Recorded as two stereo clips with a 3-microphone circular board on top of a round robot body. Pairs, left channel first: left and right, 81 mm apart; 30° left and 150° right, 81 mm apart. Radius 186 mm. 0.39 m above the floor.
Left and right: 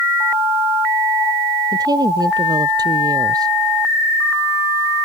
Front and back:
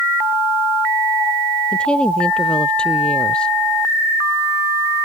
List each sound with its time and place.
1.7 s a woman speaking: 50° right